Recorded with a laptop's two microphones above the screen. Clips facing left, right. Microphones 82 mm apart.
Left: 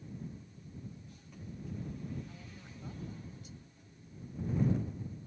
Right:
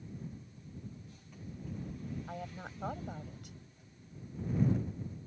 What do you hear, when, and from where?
2.3 s a woman speaking: 65° right (ahead or behind)